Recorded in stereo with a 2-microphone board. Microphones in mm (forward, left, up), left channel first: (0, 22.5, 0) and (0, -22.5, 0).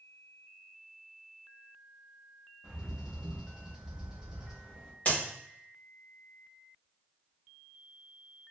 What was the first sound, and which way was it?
A bird, 15° right (ahead or behind).